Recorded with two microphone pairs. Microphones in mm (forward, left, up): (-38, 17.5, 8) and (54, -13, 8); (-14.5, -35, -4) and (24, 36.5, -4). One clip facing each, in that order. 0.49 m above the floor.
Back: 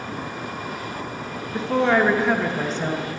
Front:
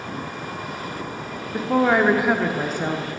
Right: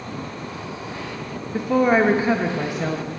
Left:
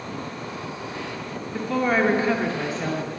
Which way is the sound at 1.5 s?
80° right.